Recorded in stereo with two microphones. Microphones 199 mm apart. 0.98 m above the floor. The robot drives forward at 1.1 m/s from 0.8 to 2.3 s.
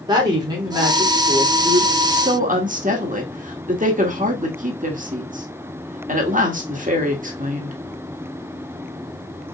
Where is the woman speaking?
20° right (ahead or behind), 3 m; by 7.8 s 40° right (ahead or behind), 1.7 m.